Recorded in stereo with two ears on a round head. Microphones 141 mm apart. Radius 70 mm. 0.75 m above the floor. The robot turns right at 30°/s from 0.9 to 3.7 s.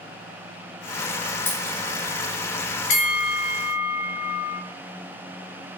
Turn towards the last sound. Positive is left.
turn(degrees=35)  # may be behind; listen again after turning